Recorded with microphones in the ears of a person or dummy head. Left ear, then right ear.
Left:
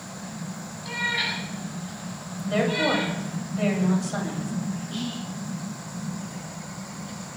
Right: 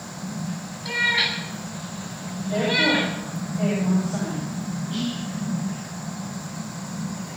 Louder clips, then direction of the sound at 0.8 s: Right 5 dB; 15° right (ahead or behind).